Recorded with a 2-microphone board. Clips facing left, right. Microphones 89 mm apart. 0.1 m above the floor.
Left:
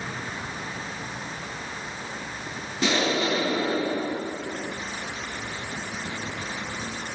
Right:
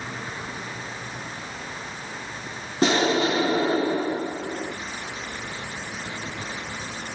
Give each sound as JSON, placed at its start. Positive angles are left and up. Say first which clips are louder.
{"t": 2.8, "sound": "an explosion", "louder": "right 4 dB", "side_deg": -40, "distance_m": 1.1}